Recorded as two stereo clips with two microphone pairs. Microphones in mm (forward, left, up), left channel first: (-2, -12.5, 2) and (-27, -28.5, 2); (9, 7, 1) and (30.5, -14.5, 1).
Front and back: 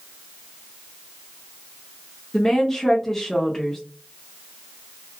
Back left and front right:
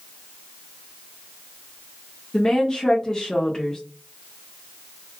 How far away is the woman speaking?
About 0.6 m.